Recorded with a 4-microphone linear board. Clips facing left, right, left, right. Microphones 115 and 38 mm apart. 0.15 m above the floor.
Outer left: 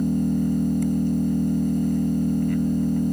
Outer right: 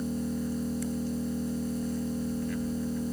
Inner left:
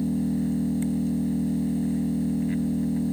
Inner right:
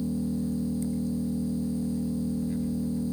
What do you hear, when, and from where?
0.0 s an engine running: 50° left (ahead or behind), 1.4 m